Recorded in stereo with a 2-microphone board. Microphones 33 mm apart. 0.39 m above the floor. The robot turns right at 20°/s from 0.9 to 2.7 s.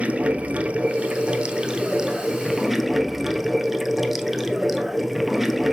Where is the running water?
40° right, 0.9 m; by 5.7 s 5° right, 0.9 m.